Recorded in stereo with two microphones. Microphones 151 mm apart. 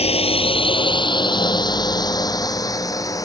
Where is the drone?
40° left (ahead or behind); by 3.3 s 20° left (ahead or behind).